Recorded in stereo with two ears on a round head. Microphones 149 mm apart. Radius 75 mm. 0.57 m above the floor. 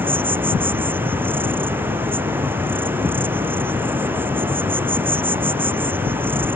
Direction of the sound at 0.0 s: 15° right (ahead or behind).